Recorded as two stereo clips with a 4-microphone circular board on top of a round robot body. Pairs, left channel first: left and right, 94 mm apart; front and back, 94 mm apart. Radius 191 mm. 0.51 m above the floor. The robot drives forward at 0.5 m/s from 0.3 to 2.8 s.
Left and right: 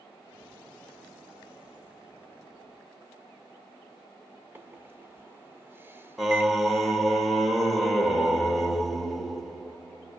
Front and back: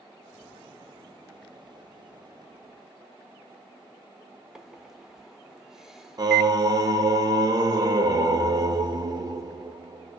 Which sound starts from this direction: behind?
Singing, at 6.2 s.